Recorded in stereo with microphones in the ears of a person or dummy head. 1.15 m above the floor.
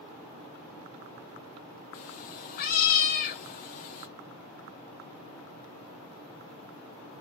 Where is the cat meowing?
45° left (ahead or behind), 0.8 m.